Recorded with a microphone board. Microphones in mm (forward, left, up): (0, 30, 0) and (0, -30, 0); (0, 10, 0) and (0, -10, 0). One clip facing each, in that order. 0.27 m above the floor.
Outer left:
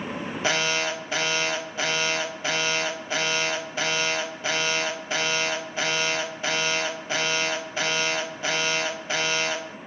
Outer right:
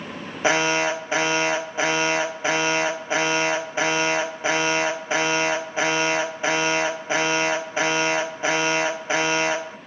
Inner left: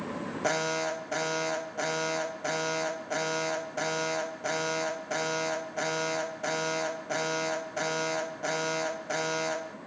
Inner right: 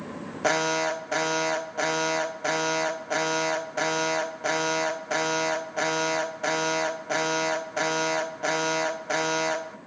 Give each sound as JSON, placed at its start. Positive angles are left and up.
{"t": 0.4, "sound": "an alarm", "side_deg": -20, "distance_m": 0.9}